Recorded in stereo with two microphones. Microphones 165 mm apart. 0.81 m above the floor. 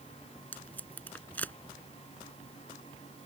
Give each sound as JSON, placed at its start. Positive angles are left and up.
{"t": 0.5, "sound": "tape being pulled", "side_deg": 10}